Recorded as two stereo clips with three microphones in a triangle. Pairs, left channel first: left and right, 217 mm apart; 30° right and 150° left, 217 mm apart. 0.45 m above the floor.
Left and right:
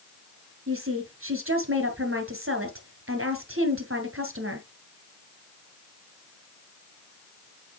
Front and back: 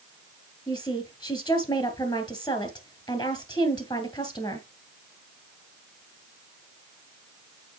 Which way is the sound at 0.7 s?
100° right.